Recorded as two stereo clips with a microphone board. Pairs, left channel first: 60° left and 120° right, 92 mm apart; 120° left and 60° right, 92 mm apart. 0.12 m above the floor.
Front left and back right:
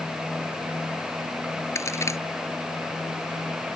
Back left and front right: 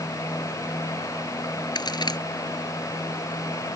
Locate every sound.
1.8 s a crack: 110° left